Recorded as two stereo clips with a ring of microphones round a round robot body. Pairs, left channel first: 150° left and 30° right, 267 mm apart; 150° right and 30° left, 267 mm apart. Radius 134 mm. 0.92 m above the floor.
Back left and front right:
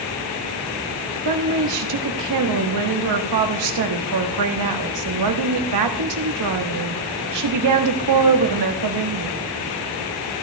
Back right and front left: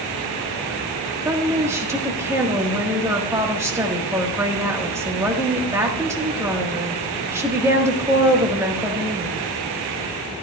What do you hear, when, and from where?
1.2 s a woman speaking: 50° right, 1.4 m